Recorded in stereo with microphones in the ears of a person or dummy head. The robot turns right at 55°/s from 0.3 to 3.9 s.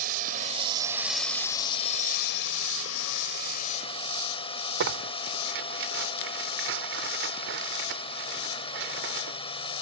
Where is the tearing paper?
65° right (ahead or behind).